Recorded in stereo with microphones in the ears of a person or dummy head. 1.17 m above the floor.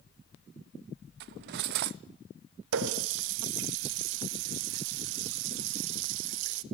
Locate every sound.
1.2 s cutlery clinking: 55° right (ahead or behind), 0.6 m
2.7 s a running tap: 75° right (ahead or behind), 1.0 m